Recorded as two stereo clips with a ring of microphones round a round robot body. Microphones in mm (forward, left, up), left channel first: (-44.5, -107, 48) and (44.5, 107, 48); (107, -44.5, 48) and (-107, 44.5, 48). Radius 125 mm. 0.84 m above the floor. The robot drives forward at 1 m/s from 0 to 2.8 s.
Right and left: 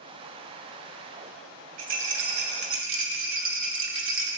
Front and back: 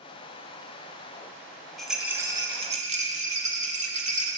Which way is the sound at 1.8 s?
65° left.